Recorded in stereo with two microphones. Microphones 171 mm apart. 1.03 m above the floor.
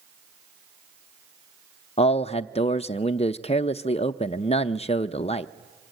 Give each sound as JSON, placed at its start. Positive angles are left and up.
{"t": 2.0, "sound": "a man speaking", "side_deg": 35, "distance_m": 0.6}